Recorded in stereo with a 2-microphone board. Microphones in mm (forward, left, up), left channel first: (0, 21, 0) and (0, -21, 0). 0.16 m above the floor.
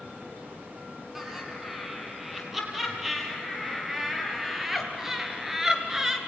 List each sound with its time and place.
1.1 s laughter: 5° right (ahead or behind), 5.5 m; by 6.2 s 10° right (ahead or behind), 2.5 m